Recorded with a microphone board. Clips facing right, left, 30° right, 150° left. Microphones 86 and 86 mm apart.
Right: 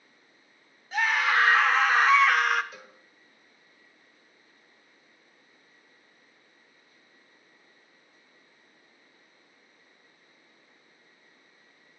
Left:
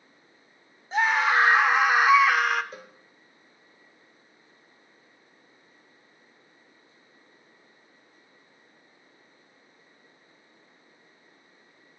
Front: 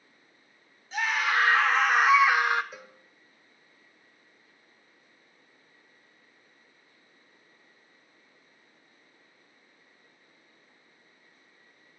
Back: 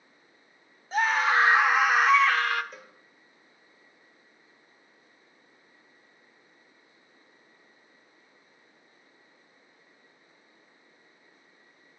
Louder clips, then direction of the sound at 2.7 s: Left 4 dB, front 1 dB; 55° left.